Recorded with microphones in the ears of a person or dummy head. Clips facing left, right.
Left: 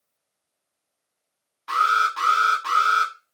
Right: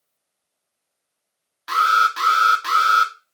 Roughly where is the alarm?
Right.